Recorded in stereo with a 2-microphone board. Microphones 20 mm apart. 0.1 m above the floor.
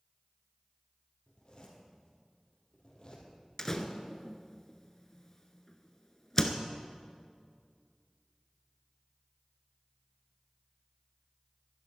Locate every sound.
1.3 s a zipper: 35° left (ahead or behind), 3.5 m
3.6 s a door slam: 25° left (ahead or behind), 0.9 m